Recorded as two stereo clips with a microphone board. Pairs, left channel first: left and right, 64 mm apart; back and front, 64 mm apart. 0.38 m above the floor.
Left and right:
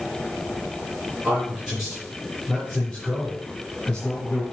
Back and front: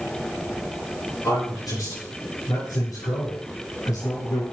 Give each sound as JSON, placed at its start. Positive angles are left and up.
{"t": 1.2, "sound": "a man speaking", "azimuth_deg": -170, "distance_m": 5.0}